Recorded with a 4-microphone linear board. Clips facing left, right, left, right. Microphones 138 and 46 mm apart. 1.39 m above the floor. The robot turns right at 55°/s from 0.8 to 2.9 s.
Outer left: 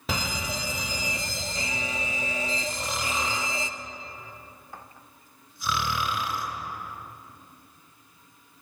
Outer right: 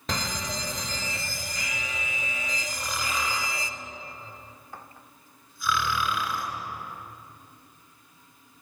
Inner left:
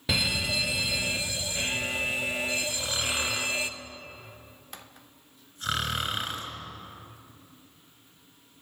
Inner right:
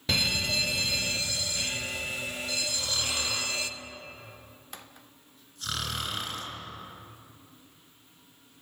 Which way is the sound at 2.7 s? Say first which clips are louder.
Outer left 1 dB, inner left 2 dB; 15° left (ahead or behind).